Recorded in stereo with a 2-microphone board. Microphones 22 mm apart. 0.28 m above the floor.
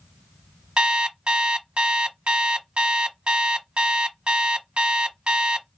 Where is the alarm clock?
55° right (ahead or behind), 1.0 m.